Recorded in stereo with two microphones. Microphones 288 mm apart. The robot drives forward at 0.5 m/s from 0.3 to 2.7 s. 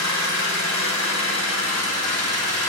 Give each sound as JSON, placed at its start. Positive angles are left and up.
{"t": 0.0, "sound": "an engine running", "side_deg": 75, "distance_m": 1.8}